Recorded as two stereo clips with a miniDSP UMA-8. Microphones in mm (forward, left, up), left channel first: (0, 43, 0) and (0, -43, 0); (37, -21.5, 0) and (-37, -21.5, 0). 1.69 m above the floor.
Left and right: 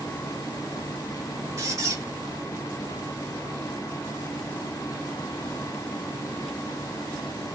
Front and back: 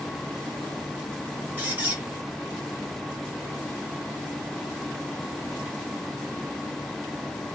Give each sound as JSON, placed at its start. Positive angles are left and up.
{"t": 1.6, "sound": "a squeak", "azimuth_deg": -120, "distance_m": 1.0}